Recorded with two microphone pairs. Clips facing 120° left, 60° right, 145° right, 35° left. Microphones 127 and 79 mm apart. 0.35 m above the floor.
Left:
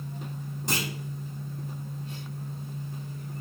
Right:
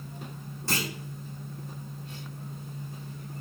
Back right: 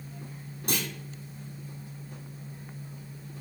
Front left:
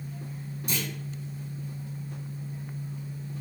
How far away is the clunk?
About 1.9 m.